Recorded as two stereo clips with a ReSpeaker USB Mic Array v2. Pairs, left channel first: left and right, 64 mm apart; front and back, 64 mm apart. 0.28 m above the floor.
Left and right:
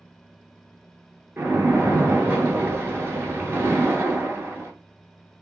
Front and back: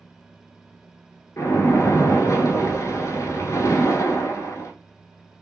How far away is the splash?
About 0.9 m.